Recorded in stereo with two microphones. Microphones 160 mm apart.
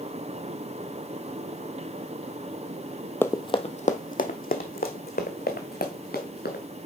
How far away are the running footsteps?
About 0.5 m.